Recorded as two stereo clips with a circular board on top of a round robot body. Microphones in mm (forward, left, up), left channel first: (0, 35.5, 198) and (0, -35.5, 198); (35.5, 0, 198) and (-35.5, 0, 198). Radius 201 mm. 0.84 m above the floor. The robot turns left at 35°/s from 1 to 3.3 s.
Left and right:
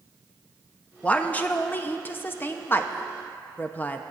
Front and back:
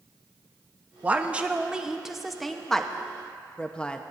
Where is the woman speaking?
135° left, 0.8 m; by 4.0 s 60° left, 0.8 m.